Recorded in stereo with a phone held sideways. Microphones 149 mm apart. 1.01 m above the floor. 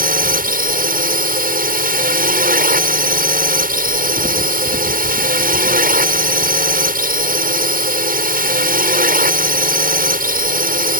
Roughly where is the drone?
Right.